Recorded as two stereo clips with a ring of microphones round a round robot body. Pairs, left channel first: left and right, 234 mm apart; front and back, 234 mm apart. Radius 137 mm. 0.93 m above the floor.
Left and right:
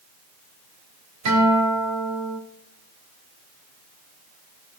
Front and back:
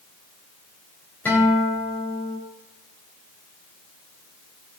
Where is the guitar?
85° right, 3 m.